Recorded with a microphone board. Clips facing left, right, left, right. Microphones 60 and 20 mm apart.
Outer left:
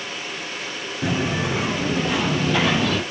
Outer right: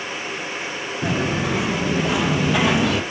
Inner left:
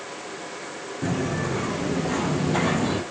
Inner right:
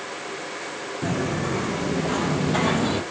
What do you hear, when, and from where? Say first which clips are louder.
1.0 s footsteps: outer right 1 dB, even; 5° left (ahead or behind), 4.5 m; by 3.0 s 15° right (ahead or behind), 3 m